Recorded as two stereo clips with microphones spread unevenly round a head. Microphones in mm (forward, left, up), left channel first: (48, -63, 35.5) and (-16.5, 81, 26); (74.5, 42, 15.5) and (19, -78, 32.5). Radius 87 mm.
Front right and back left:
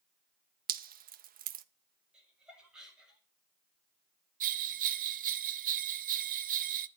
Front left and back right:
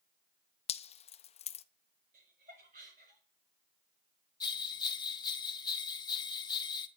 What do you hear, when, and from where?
0.7 s dripping: 100° left, 1.0 m
2.1 s laughter: 160° right, 6.5 m
4.4 s a bell: 130° left, 0.8 m